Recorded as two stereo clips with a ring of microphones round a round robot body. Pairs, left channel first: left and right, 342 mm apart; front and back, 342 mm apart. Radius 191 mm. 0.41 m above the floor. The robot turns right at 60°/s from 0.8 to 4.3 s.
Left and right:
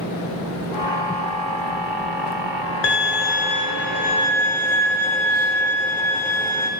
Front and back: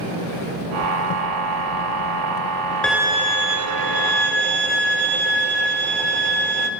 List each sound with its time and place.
2.8 s a violin: 85° left, 1.1 m; by 6.7 s 175° left, 1.1 m